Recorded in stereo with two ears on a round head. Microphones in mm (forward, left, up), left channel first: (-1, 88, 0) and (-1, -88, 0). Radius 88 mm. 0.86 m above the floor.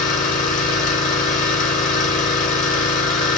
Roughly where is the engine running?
Left.